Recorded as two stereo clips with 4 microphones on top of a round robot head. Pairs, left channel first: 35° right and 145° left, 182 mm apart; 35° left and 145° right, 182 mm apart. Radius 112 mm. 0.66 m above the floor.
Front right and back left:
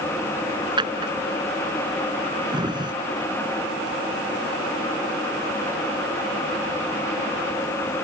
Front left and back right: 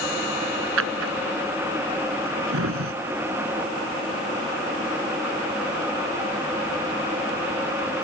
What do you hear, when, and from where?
0.8 s a drawer: 150° right